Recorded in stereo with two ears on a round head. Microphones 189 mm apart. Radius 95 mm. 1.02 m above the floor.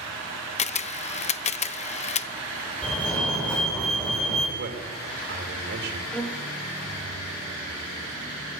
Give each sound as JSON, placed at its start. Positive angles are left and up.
{"t": 0.6, "sound": "a camera shutter", "side_deg": 30, "distance_m": 0.8}
{"t": 2.8, "sound": "a fire alarm", "side_deg": 5, "distance_m": 7.0}
{"t": 4.6, "sound": "a man speaking", "side_deg": -55, "distance_m": 4.0}
{"t": 6.1, "sound": "a violin", "side_deg": 5, "distance_m": 1.0}